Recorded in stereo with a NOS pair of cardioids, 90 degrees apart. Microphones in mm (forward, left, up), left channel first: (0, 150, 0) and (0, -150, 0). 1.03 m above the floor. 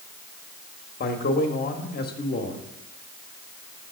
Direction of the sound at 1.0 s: 30° left.